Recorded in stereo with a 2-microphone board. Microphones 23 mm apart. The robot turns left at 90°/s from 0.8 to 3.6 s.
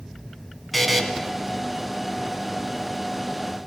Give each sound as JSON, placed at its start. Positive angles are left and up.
{"t": 0.7, "sound": "a buzzer", "side_deg": 5, "distance_m": 1.8}